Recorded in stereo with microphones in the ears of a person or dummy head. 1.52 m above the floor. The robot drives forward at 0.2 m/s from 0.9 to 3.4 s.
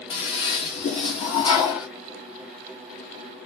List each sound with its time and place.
0.1 s a toilet flushing: 30° left (ahead or behind), 1.5 m; by 1.9 s 25° left (ahead or behind), 1.6 m